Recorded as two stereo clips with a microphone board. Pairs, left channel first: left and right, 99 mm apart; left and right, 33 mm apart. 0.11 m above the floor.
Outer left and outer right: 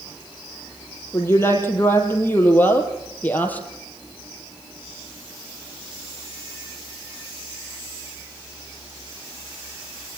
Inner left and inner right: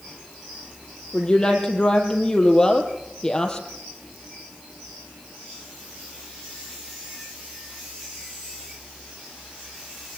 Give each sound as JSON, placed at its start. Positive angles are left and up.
{"t": 1.1, "sound": "a woman speaking", "side_deg": 25, "distance_m": 5.0}